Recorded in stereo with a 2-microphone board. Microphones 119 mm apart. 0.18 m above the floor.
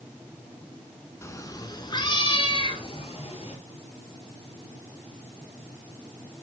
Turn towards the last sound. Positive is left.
turn(degrees=55)  # may be behind; listen again after turning